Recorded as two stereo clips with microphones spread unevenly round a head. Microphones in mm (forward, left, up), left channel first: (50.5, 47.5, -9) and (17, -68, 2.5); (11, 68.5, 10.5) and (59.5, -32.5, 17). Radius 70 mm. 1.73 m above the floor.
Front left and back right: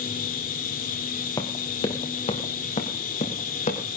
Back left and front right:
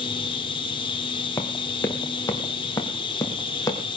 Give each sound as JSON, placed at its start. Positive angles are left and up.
{"t": 0.0, "sound": "a machine running", "azimuth_deg": 75, "distance_m": 3.0}
{"t": 1.4, "sound": "running footsteps", "azimuth_deg": 80, "distance_m": 1.8}